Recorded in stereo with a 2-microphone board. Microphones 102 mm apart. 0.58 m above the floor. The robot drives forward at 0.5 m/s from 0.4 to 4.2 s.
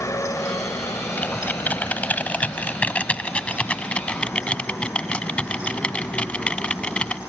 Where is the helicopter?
30° left (ahead or behind); by 7.3 s 25° left (ahead or behind).